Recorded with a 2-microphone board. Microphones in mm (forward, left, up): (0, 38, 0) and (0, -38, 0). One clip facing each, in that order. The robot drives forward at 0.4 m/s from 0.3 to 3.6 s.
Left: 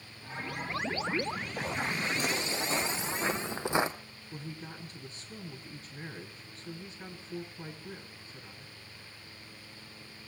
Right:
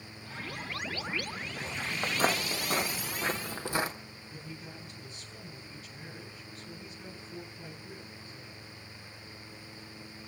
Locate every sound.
2.0 s footsteps: 45° right (ahead or behind), 1.0 m; by 3.9 s 25° left (ahead or behind), 1.4 m
4.3 s a woman speaking: 40° left (ahead or behind), 7.5 m